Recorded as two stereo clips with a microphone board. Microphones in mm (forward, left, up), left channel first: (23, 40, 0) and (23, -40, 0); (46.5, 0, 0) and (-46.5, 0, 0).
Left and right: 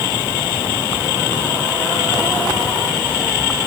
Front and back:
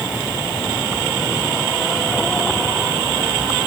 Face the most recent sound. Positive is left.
No sound to turn to.